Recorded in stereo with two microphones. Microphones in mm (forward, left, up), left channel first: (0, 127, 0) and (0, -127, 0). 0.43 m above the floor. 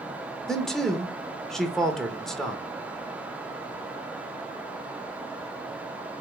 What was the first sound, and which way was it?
A man speaking, centre (ahead or behind).